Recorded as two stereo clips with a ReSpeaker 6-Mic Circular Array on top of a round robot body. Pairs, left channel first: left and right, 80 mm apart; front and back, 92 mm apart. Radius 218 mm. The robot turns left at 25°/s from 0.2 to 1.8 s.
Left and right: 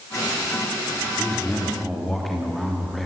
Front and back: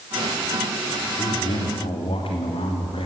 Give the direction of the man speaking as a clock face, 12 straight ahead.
11 o'clock.